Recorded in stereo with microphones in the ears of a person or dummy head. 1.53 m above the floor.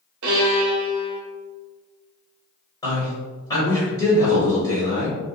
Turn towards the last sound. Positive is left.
turn(degrees=20)  # may be behind; listen again after turning